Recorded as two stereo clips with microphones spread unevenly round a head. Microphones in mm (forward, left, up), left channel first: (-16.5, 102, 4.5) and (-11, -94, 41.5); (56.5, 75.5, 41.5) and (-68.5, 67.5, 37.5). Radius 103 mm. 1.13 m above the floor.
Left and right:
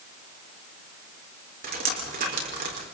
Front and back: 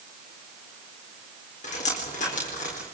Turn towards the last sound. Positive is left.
turn(degrees=-40)